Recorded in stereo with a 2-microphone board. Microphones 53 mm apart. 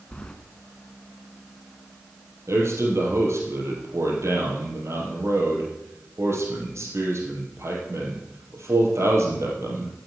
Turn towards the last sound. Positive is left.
turn(degrees=-60)  # may be behind; listen again after turning